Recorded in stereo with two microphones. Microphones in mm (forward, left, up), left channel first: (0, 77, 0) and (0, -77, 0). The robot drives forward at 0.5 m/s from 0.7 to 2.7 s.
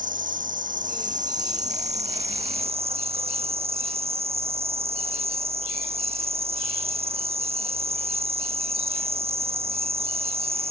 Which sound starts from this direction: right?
An insect, at 0.0 s.